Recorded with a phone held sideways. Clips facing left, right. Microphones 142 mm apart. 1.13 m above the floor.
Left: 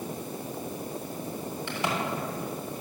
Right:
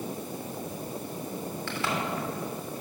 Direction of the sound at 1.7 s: 20° left (ahead or behind).